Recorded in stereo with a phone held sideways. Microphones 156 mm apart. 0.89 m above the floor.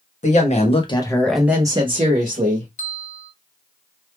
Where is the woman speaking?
55° left (ahead or behind), 1.2 m; by 2.7 s 60° right (ahead or behind), 1.3 m.